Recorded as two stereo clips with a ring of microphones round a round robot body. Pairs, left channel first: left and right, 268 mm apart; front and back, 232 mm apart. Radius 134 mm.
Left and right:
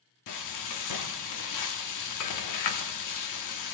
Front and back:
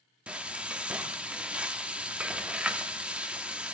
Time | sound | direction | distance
0.3 | frying | 95° left | 1.1 m